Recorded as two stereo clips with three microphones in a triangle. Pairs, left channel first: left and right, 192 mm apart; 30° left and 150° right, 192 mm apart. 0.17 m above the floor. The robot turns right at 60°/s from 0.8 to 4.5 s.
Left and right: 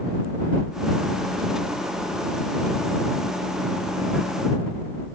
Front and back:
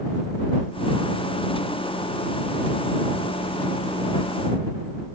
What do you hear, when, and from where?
Only background noise.